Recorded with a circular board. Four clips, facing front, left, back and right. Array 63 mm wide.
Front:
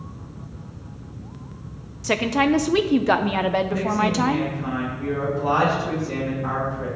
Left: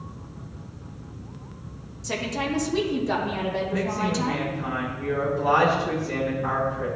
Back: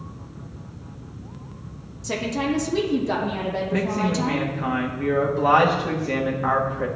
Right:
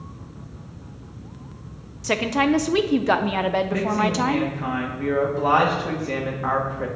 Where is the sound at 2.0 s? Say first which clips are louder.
Right 8 dB, front 5 dB; 45° right, 0.8 m.